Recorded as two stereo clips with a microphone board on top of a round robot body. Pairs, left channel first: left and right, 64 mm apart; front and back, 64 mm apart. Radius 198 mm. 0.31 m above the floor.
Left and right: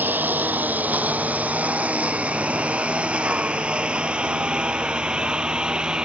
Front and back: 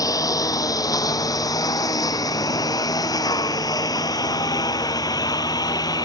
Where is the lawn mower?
30° right; by 6.1 s 15° right.